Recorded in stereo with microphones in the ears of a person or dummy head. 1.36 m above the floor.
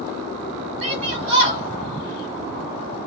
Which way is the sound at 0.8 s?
35° right (ahead or behind).